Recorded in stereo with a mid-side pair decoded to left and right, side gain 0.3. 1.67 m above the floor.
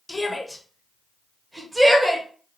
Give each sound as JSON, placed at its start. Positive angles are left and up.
{"t": 0.1, "sound": "a shout", "azimuth_deg": 25, "distance_m": 1.1}